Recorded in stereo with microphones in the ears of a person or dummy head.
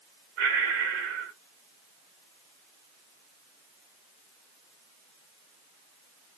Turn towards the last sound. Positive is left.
turn(degrees=-65)  # may be behind; listen again after turning